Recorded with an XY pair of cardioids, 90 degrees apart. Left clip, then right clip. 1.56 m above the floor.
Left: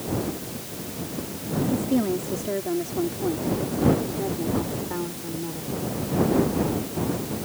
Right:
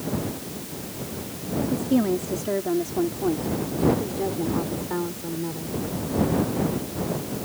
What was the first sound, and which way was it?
A woman speaking, 20° right.